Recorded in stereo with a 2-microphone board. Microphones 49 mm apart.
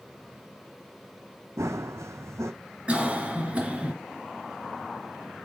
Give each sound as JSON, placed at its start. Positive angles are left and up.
{"t": 1.6, "sound": "running footsteps", "side_deg": -80, "distance_m": 0.7}
{"t": 2.9, "sound": "a cough", "side_deg": -25, "distance_m": 2.0}